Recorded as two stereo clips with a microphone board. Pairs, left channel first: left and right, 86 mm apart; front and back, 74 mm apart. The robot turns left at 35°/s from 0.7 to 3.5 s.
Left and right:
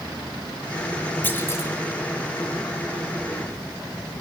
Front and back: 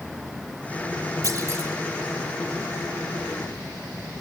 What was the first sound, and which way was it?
A clunk, 155° left.